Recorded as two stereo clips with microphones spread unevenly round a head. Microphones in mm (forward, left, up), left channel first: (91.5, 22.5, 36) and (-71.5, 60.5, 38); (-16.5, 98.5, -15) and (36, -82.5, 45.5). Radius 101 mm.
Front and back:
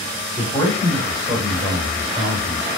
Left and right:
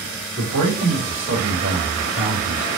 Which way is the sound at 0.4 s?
75° right.